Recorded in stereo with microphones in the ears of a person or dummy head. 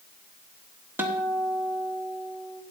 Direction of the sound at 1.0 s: 10° right (ahead or behind).